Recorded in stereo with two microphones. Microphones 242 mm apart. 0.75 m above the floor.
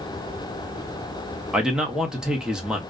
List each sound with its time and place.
1.5 s a man speaking: 5° right (ahead or behind), 0.7 m